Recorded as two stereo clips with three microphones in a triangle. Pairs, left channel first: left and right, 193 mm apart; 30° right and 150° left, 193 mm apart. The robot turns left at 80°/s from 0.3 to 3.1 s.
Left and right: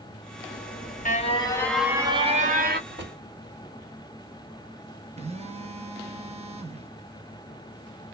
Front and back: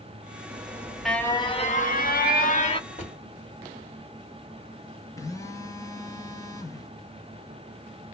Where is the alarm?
100° left, 1.1 m; by 2.8 s 80° right, 1.1 m.